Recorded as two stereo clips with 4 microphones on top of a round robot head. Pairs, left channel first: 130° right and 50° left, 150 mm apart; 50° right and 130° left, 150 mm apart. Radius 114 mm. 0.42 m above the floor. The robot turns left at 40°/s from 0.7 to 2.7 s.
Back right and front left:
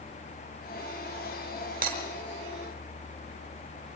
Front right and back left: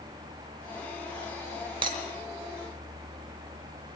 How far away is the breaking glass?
About 5 m.